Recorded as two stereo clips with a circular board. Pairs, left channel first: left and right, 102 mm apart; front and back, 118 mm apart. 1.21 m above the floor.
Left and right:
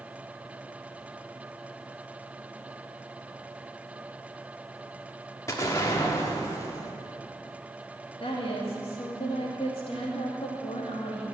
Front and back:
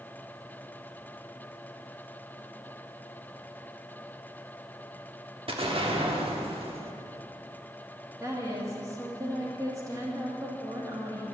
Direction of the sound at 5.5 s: 145° left.